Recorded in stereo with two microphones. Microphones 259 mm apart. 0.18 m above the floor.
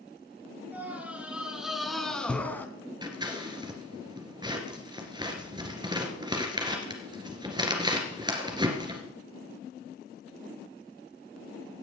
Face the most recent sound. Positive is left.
turn(degrees=-15)  # may be behind; listen again after turning